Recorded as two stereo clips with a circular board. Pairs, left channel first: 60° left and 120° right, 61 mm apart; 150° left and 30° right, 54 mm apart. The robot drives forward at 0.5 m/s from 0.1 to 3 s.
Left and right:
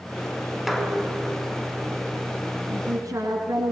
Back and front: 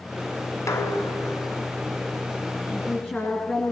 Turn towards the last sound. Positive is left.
turn(degrees=-150)